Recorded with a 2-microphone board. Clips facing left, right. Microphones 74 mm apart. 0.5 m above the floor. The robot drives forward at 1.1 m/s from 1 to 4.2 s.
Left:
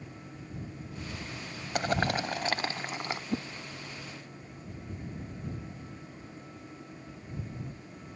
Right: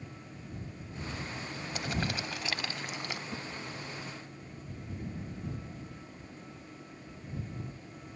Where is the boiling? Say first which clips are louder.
Left 7 dB; 55° left (ahead or behind); by 3.2 s 35° left (ahead or behind).